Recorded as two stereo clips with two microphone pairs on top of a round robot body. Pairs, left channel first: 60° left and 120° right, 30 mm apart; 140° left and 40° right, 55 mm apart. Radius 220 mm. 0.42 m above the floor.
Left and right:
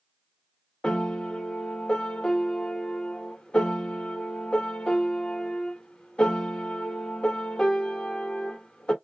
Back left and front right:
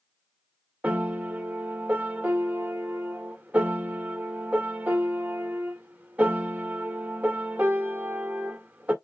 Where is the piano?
5° left, 1.9 m.